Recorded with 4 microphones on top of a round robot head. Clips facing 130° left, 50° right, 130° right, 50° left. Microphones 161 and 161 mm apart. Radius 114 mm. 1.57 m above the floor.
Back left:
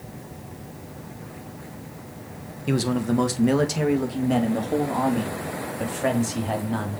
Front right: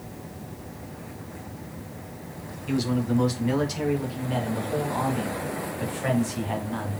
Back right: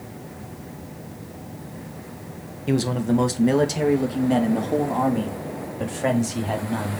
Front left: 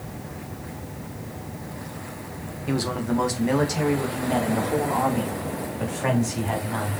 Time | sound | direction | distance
2.7 | a man speaking | 165° left | 1.7 m